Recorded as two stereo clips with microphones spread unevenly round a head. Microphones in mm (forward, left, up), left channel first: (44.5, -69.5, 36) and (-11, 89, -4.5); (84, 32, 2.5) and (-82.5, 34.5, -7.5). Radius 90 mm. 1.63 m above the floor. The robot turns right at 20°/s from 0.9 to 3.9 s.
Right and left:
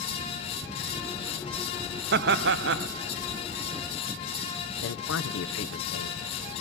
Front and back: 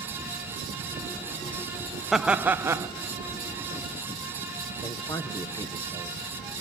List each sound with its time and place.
2.1 s laughter: 90° left, 0.5 m; by 2.9 s 105° left, 0.5 m
4.8 s a man speaking: 75° right, 1.2 m